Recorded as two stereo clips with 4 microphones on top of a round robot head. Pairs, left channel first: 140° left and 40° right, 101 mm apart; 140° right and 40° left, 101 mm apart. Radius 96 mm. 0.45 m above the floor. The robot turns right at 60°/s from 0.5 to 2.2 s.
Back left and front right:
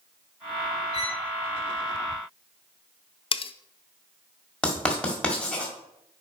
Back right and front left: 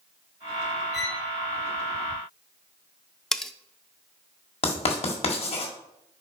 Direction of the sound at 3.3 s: 135° left.